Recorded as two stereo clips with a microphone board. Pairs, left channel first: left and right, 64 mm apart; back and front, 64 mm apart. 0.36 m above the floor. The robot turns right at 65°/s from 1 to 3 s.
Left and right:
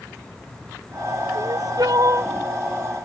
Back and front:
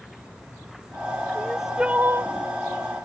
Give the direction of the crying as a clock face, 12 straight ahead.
3 o'clock.